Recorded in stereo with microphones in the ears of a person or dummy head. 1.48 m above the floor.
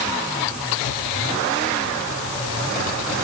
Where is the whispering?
I don't hear whispering.